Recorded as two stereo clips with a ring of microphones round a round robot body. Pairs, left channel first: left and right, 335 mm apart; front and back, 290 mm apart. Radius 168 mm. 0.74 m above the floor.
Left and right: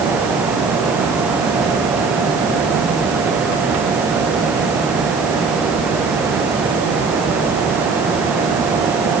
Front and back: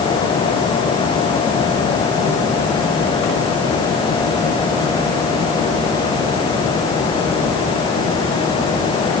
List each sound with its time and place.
Only background noise.